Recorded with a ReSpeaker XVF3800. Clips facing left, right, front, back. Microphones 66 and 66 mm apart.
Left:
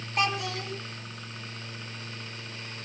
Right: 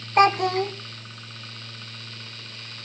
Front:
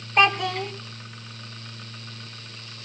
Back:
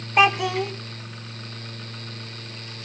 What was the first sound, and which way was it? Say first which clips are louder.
A child speaking: right 11 dB, back 2 dB; 100° right.